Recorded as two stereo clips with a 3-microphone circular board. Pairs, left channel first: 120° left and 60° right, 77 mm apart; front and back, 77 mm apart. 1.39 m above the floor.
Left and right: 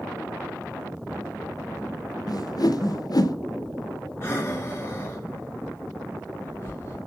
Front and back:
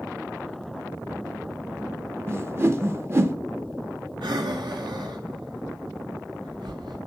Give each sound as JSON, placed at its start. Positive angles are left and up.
{"t": 2.3, "sound": "a whoosh", "azimuth_deg": 130, "distance_m": 0.8}
{"t": 4.2, "sound": "breathing", "azimuth_deg": 180, "distance_m": 2.0}